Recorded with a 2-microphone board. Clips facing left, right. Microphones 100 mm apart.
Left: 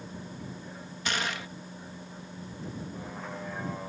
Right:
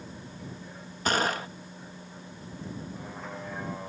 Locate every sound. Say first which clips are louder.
0.0 s a vehicle: left 1 dB; 5° left (ahead or behind); by 3.9 s centre (ahead or behind)
1.1 s a gunshot: right 6 dB; 40° right (ahead or behind)